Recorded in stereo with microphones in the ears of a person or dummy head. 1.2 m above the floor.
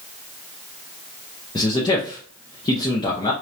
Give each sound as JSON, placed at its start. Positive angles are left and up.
{"t": 1.6, "sound": "a man speaking", "side_deg": 25, "distance_m": 0.7}